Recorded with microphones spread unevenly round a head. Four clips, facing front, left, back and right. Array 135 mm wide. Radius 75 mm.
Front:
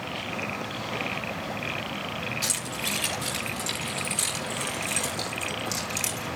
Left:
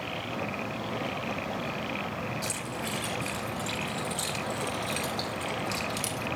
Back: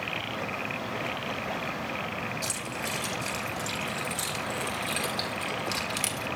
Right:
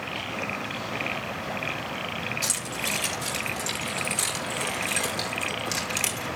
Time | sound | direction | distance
2.4 | keys jangling | 55° right | 5 m